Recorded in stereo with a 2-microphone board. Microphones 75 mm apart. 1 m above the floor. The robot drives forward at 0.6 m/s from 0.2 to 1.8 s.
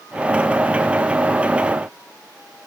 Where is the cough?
No cough in this recording.